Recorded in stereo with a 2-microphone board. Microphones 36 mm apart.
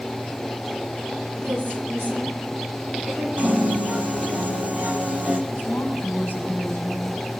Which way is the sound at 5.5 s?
85° left.